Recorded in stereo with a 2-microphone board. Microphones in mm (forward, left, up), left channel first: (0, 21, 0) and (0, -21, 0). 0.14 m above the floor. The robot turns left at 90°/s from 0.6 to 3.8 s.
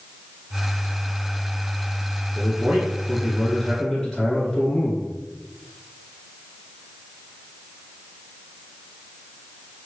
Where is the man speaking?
85° right, 1.3 m; by 5.1 s 145° left, 1.3 m.